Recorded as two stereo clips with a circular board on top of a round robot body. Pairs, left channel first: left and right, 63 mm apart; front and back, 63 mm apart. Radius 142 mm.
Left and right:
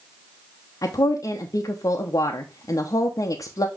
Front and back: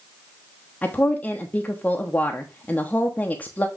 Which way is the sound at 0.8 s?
65° left.